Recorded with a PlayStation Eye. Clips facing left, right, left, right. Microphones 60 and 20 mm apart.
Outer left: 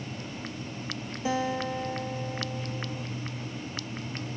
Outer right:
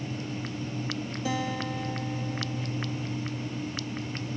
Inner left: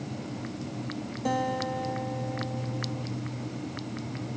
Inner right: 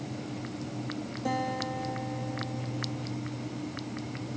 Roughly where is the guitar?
Left.